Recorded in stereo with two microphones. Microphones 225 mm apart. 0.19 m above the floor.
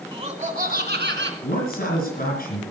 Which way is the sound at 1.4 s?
45° left (ahead or behind).